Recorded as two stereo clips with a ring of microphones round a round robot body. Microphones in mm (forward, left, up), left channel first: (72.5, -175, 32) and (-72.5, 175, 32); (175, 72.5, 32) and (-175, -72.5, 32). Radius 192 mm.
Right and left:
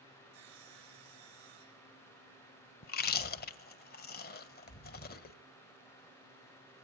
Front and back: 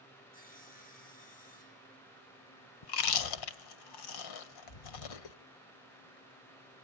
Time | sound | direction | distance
0.3 | sawing | 90° left | 4.5 m
2.8 | chewing | straight ahead | 1.3 m